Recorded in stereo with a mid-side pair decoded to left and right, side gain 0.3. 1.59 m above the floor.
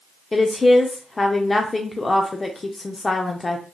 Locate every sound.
0.3 s a woman speaking: 35° left, 0.6 m